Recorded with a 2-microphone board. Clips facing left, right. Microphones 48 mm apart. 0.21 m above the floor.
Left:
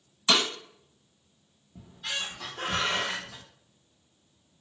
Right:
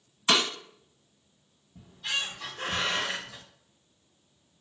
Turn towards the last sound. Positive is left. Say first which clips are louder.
# right 2 dB
turn(degrees=70)  # may be behind; listen again after turning